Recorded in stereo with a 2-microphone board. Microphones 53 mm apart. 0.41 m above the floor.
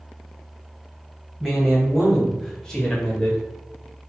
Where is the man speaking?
5° right (ahead or behind), 1.9 m; by 3.4 s 20° left (ahead or behind), 1.2 m.